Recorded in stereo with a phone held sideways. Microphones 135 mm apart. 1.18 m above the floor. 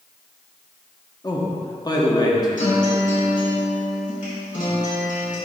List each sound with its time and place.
1.2 s a man speaking: 30° left (ahead or behind), 1.2 m
2.6 s a guitar: 75° left (ahead or behind), 2.5 m